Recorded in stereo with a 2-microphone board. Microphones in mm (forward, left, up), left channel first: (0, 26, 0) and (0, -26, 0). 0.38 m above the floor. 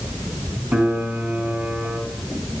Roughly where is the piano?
Right.